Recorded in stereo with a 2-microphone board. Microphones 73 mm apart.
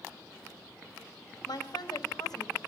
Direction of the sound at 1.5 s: 75° left (ahead or behind).